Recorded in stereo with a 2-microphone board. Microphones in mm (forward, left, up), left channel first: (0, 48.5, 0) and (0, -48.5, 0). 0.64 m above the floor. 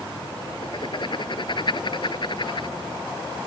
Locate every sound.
0.6 s writing: 55° left (ahead or behind)